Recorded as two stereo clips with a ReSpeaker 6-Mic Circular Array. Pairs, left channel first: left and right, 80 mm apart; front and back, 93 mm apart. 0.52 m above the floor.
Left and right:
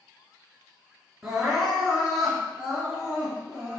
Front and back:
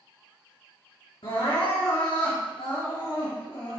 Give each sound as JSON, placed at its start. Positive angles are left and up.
{"t": 1.2, "sound": "crying", "azimuth_deg": -5, "distance_m": 3.0}